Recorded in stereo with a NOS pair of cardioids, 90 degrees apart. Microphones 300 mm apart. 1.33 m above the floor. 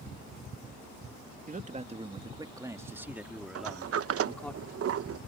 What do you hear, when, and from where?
1.5 s a man speaking: 25° right; by 4.5 s 5° left
3.5 s a sliding door: 50° right